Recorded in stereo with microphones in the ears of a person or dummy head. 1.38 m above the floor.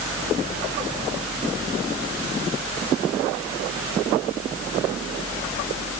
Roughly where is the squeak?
No squeak in this recording.